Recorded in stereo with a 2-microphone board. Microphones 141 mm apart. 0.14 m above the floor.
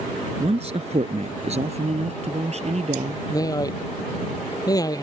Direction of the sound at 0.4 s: 50° right (ahead or behind).